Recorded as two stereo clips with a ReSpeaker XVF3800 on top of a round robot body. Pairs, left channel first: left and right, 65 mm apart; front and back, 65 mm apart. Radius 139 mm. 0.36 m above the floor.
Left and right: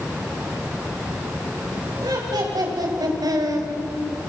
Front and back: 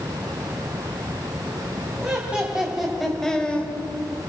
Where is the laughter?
110° right, 3 m; by 3.7 s 65° right, 2.0 m.